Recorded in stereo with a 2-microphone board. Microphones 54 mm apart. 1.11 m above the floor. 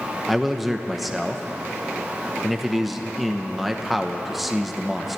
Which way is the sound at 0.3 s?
5° right (ahead or behind).